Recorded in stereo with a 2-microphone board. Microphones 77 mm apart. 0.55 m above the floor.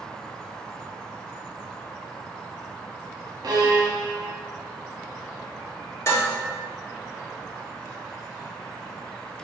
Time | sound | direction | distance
3.4 | a violin | 60° right (ahead or behind) | 0.8 m
6.1 | dishes clattering | 40° left (ahead or behind) | 1.4 m